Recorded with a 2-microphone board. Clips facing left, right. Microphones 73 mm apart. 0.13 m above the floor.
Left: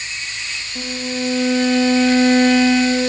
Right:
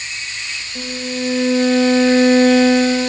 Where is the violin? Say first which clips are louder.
Even; 40° right (ahead or behind), 3 m.